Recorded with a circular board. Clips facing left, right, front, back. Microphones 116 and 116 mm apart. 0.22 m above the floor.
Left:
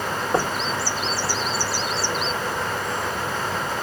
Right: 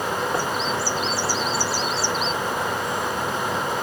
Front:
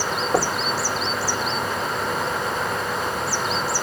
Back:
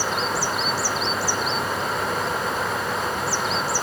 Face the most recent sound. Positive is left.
turn(degrees=30)